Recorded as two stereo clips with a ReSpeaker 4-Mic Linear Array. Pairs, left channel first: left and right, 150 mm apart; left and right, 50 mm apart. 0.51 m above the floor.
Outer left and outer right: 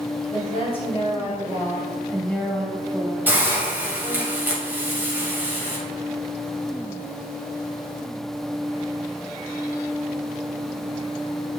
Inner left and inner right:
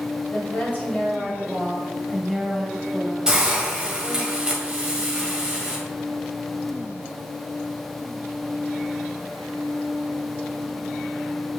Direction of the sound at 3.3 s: 10° right (ahead or behind).